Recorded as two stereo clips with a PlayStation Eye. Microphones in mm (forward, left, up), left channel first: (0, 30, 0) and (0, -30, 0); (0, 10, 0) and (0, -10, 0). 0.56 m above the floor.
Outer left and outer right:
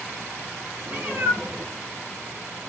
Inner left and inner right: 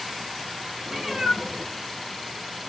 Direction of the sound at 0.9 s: 30° right (ahead or behind).